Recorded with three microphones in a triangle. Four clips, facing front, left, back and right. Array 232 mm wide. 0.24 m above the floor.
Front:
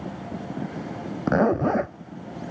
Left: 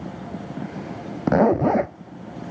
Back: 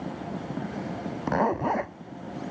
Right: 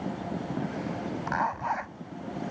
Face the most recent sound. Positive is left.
turn(degrees=75)